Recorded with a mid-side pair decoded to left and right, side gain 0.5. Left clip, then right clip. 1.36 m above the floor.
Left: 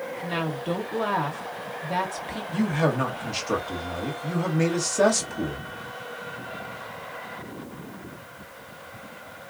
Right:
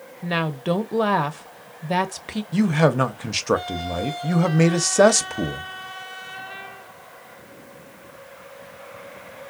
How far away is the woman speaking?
About 0.9 m.